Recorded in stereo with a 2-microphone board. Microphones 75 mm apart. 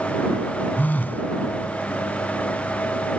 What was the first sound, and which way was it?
A phone buzzing, 25° left (ahead or behind).